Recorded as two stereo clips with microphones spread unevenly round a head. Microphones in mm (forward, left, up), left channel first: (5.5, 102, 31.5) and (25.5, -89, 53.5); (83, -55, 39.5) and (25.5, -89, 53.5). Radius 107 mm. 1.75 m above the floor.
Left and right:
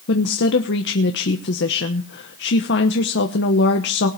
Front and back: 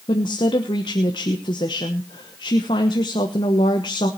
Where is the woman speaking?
65° left, 1.1 m.